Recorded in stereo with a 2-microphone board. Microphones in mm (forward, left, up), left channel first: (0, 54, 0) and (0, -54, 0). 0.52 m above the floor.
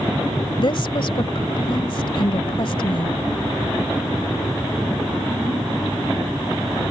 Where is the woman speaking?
50° left (ahead or behind).